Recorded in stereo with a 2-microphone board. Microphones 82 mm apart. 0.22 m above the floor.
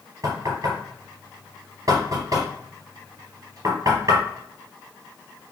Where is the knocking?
50° right (ahead or behind), 4 m.